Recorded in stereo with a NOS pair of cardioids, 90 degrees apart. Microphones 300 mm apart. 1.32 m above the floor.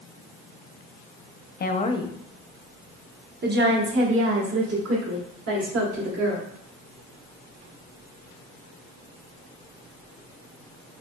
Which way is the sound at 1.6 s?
35° left.